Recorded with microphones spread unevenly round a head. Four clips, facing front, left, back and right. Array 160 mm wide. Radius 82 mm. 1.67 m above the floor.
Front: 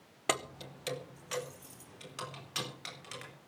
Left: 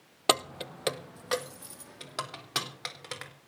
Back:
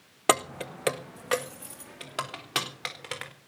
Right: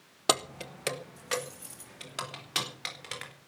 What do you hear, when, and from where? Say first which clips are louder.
0.3 s keys jangling: left 2 dB, back 10 dB; 165° left, 0.7 m